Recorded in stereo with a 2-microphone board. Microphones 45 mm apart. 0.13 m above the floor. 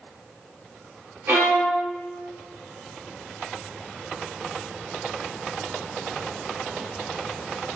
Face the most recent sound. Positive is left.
turn(degrees=-55)  # may be behind; listen again after turning